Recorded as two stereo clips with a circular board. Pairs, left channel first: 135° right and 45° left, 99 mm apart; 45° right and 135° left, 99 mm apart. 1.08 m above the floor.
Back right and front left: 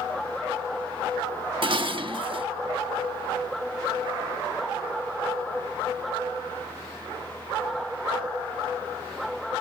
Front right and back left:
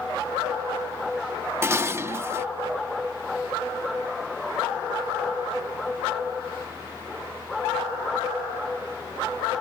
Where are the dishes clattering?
70° left.